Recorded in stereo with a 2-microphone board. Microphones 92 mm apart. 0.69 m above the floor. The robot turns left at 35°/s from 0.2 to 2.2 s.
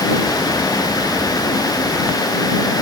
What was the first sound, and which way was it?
Only background noise.